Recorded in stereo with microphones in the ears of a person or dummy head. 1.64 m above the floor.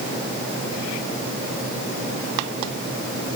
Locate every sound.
Only background noise.